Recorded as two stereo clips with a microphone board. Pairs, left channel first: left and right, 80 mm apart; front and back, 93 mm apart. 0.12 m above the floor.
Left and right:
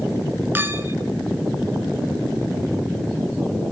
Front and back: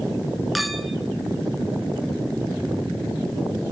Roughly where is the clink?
Right.